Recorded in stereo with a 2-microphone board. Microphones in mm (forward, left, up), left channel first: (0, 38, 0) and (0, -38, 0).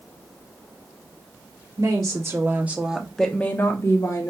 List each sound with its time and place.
1.8 s a woman speaking: 45° right (ahead or behind), 1.3 m; by 4.3 s 50° left (ahead or behind), 1.1 m